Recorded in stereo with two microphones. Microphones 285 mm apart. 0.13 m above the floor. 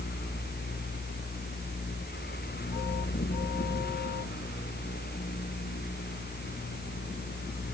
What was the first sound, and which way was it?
Only background noise.